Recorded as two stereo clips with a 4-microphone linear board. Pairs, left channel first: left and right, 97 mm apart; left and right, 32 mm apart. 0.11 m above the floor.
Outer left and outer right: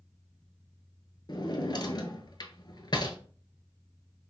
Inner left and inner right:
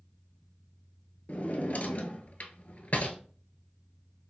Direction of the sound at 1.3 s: 50° left (ahead or behind).